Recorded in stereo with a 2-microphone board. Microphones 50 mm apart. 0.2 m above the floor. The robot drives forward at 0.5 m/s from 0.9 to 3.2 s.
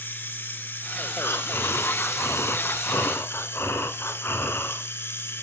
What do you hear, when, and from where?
0.0 s running water: 40° left (ahead or behind), 1.0 m; by 5.4 s 50° left (ahead or behind), 0.9 m
1.2 s breathing: 50° left (ahead or behind), 1.1 m; by 4.8 s 55° left (ahead or behind), 1.1 m